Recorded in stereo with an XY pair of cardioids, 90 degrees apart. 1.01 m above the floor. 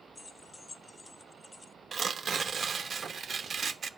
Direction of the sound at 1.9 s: 55° right.